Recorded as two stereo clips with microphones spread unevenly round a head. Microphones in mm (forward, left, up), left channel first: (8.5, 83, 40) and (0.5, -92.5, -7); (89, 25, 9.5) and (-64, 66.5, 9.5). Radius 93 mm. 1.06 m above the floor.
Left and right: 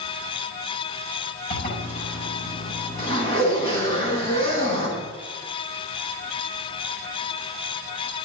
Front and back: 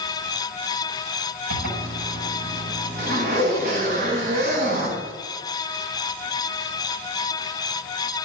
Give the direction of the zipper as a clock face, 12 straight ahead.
7 o'clock.